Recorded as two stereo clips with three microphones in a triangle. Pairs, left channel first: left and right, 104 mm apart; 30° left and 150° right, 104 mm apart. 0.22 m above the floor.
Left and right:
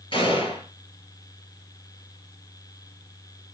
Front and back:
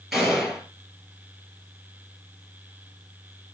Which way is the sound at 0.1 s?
125° left.